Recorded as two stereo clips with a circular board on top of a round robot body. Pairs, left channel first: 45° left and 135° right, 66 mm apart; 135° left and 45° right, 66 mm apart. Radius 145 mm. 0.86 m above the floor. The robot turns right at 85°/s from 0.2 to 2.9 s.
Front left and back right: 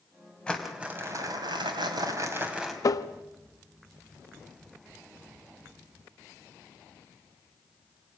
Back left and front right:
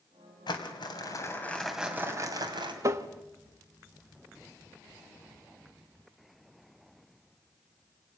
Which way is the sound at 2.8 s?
Straight ahead.